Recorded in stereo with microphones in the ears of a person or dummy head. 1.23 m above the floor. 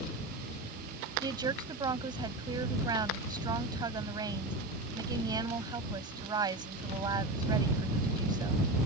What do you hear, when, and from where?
1.2 s a woman speaking: 20° right (ahead or behind)